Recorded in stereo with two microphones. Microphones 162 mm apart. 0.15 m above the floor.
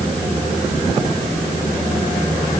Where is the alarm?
No alarm in this recording.